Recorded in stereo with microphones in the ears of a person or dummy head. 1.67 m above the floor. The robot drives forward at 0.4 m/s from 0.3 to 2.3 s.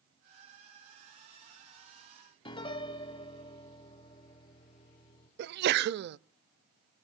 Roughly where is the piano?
Left.